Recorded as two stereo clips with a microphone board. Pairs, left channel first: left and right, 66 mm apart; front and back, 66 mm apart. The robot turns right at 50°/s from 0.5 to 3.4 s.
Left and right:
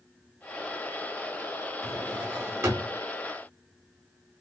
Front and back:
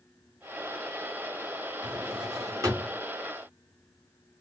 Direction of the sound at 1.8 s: Straight behind.